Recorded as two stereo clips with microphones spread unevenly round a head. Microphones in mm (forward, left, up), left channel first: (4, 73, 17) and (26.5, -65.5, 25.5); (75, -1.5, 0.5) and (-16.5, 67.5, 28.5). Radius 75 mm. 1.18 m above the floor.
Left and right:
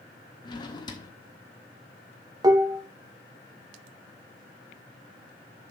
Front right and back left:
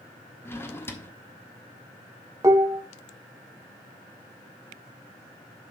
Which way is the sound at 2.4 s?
150° right.